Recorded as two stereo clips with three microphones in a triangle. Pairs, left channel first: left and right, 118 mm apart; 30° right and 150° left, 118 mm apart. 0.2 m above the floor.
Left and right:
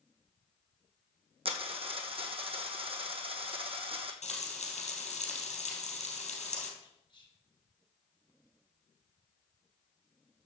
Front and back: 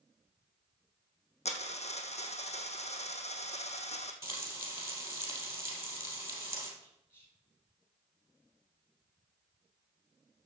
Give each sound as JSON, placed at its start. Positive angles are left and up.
{"t": 1.4, "sound": "a dropped coin", "azimuth_deg": -55, "distance_m": 1.4}
{"t": 4.2, "sound": "frying", "azimuth_deg": 85, "distance_m": 3.0}
{"t": 6.8, "sound": "whispering", "azimuth_deg": 40, "distance_m": 4.0}